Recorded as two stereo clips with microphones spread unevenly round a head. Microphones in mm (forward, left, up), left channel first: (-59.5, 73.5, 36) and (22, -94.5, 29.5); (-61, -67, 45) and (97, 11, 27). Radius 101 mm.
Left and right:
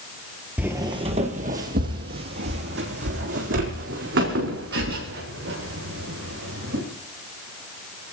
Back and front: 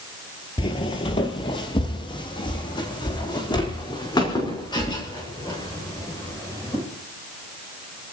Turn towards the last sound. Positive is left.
turn(degrees=-85)